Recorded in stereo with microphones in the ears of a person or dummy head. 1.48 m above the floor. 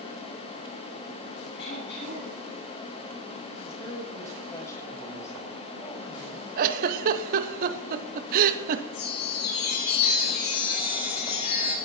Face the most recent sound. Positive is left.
turn(degrees=55)  # may be behind; listen again after turning